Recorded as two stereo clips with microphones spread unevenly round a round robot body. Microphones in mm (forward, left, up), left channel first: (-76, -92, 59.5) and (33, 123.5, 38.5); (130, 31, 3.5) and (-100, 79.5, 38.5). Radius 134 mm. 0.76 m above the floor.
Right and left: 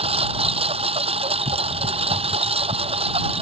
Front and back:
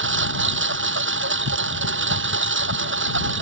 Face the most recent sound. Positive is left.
turn(degrees=130)